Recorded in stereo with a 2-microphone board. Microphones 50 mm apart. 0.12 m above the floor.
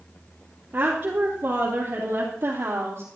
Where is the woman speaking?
35° right (ahead or behind), 3 m; by 3.0 s 55° right (ahead or behind), 3 m.